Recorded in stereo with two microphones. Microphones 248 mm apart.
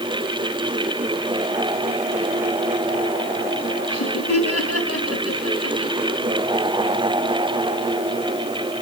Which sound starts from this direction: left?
Laughter, at 3.9 s.